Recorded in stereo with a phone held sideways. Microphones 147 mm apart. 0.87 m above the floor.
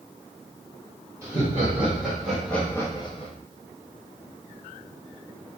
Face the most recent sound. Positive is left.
turn(degrees=45)  # may be behind; listen again after turning